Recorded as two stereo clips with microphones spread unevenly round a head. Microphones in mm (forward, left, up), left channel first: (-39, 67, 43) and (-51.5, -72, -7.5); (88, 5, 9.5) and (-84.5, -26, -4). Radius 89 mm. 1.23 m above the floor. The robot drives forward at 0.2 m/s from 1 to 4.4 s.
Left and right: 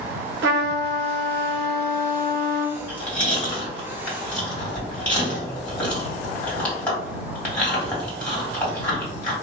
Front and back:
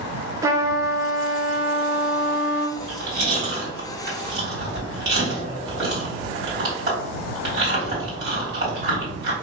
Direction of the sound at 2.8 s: 155° left.